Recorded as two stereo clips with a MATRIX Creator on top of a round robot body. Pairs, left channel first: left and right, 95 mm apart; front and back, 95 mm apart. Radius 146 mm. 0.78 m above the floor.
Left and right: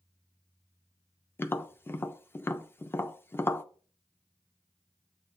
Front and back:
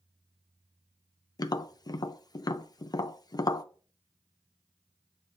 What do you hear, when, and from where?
1.4 s tapping: 30° left, 0.5 m